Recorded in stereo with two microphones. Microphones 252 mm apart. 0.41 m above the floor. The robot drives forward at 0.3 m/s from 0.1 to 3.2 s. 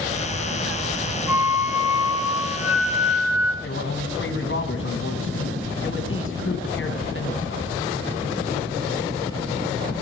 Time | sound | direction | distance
1.3 | a flute | 10° right (ahead or behind) | 1.3 m
3.6 | a man speaking | 55° left (ahead or behind) | 3 m